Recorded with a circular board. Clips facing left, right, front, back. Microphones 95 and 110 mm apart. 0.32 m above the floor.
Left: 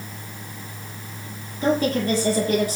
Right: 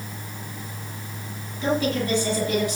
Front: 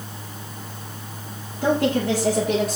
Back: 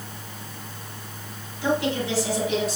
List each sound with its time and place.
1.6 s a woman speaking: 40° left, 7 m